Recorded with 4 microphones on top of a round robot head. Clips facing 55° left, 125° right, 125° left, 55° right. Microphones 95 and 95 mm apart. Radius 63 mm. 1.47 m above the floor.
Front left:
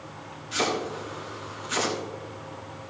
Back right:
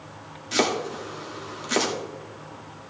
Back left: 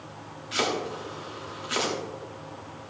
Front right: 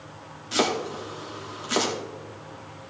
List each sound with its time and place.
0.5 s chopping: 115° right, 1.5 m